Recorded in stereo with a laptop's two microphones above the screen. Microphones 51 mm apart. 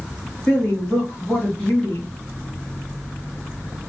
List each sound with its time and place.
0.5 s a woman speaking: 20° left (ahead or behind), 1.7 m